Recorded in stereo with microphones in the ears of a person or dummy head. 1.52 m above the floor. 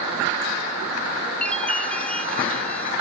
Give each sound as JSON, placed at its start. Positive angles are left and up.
{"t": 1.4, "sound": "a chime", "side_deg": 5, "distance_m": 0.9}